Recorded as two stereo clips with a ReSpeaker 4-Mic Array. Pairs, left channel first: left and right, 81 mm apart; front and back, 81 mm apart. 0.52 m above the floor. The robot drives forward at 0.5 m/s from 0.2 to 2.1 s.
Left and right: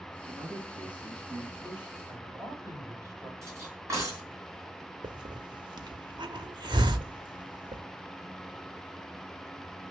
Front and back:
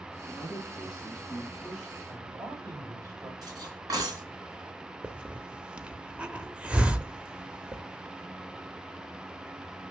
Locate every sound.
0.3 s a man speaking: 80° right, 4.5 m; by 2.0 s 90° right, 4 m
2.1 s a man speaking: 135° right, 3.5 m
3.4 s cutlery clinking: 140° right, 3.5 m
5.0 s a hiss: 100° right, 0.8 m